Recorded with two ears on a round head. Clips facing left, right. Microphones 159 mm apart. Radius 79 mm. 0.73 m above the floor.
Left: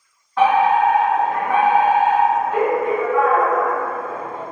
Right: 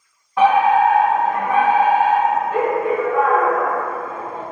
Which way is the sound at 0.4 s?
15° right (ahead or behind).